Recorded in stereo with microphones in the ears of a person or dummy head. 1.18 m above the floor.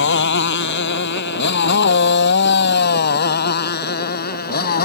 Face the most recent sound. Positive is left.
turn(degrees=50)  # may be behind; listen again after turning